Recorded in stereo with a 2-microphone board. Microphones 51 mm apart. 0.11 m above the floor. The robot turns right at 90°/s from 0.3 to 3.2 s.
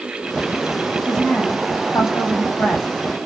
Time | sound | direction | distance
1.1 | a woman speaking | 5° right | 5.5 m